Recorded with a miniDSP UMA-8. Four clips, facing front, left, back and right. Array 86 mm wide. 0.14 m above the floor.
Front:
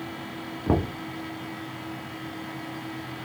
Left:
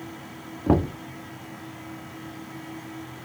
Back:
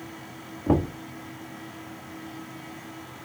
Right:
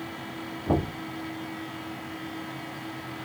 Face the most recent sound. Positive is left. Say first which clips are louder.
# left 5 dB, back 2 dB
turn(degrees=80)